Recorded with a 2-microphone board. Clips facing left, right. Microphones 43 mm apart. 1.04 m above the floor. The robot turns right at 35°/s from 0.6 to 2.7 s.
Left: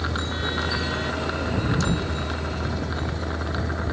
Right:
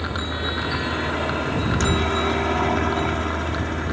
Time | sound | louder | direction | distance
0.0 | a helicopter | right 1 dB | 150° right | ?